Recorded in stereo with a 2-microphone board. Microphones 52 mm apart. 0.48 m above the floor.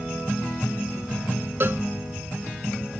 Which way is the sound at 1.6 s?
45° right (ahead or behind).